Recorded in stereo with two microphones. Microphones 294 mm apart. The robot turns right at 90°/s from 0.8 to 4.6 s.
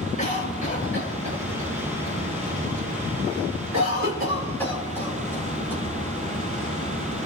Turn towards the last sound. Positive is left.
turn(degrees=10)  # may be behind; listen again after turning